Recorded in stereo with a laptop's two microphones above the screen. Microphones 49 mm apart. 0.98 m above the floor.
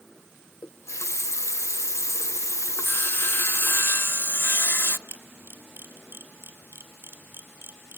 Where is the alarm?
I don't hear an alarm.